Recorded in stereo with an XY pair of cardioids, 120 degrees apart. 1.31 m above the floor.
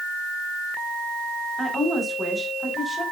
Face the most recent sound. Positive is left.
turn(degrees=-5)